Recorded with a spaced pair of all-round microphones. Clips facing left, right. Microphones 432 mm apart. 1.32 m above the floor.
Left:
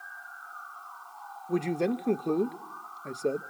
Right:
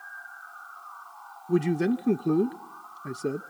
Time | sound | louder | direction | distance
1.5 | a man speaking | right 4 dB | 30° right (ahead or behind) | 0.5 m